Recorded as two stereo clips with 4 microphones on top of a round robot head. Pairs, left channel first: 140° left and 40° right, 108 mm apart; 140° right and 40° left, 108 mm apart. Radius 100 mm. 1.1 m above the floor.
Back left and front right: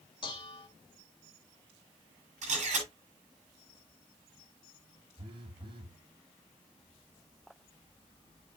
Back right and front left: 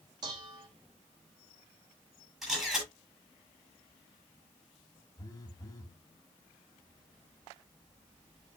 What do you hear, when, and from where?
0.2 s dishes clattering: 90° left, 1.7 m
2.4 s a camera shutter: 50° right, 9.5 m
5.2 s a phone buzzing: 85° right, 1.7 m